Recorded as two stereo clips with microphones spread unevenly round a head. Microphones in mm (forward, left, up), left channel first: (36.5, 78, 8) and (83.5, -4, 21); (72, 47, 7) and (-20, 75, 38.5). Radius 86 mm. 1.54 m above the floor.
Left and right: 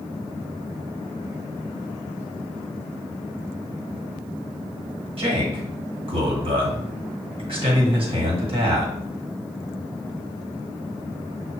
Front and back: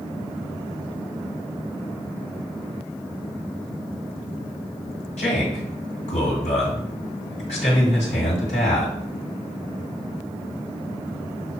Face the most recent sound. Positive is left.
turn(degrees=-45)